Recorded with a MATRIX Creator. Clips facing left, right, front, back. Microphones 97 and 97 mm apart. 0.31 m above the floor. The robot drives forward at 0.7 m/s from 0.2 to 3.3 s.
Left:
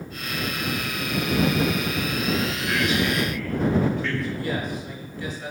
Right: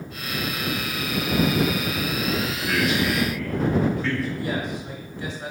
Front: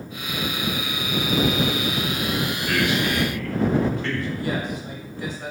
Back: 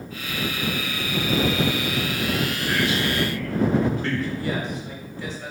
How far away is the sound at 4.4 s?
About 1.1 m.